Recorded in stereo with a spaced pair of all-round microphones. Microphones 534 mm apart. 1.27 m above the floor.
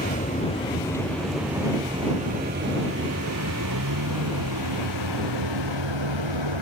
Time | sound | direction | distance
0.0 | a vehicle | 15° left (ahead or behind) | ?